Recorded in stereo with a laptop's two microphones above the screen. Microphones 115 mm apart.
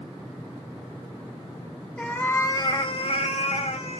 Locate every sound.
2.0 s a cat meowing: 5° left (ahead or behind), 0.7 m; by 4.0 s 60° left (ahead or behind), 0.9 m